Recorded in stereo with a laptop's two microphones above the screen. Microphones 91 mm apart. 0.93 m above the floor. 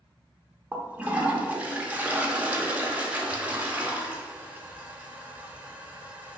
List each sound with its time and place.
0.7 s a toilet flushing: 15° right (ahead or behind), 0.8 m